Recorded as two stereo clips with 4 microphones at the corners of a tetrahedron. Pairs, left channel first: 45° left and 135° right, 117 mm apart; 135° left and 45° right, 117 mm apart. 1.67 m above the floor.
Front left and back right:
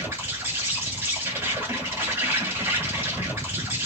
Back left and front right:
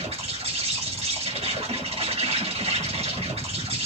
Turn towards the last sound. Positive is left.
turn(degrees=-65)